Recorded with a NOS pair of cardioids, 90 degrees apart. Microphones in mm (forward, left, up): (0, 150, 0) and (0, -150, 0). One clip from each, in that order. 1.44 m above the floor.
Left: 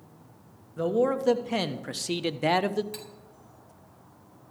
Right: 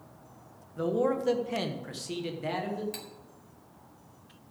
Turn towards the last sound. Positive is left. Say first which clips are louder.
# left 1 dB
turn(degrees=-10)